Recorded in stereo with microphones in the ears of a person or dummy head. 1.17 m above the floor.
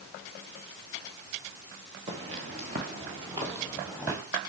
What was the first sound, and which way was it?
Footsteps, 30° right (ahead or behind).